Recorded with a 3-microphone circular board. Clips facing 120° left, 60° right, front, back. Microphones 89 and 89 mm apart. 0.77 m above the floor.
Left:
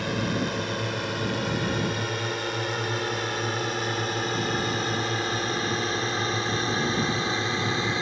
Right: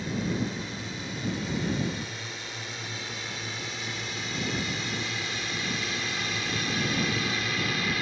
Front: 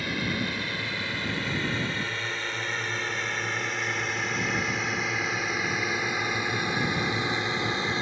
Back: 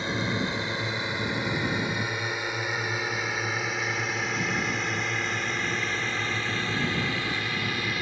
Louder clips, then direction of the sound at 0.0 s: Left 3 dB, back 2 dB; 115° left.